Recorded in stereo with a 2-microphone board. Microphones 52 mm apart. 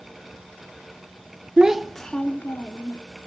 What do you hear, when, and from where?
1.6 s a child speaking: 20° right (ahead or behind), 0.5 m; by 3.0 s 45° left (ahead or behind), 1.0 m